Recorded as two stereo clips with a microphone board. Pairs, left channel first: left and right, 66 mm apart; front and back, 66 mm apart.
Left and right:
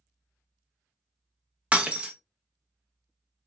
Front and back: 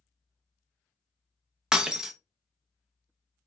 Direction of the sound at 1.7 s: 120° right.